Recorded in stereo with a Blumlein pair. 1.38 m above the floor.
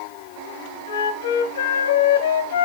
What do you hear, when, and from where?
0.9 s a flute: 60° left, 1.0 m